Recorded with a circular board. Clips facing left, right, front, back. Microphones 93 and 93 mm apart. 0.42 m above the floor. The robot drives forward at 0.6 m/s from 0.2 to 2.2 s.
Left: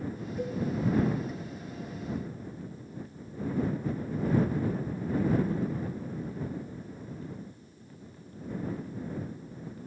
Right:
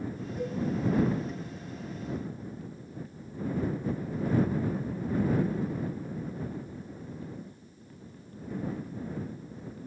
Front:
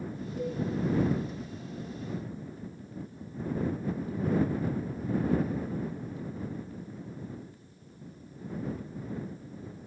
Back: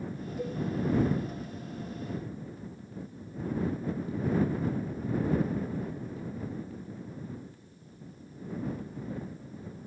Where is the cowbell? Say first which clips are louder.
Even, front 2 dB; straight ahead, 0.8 m.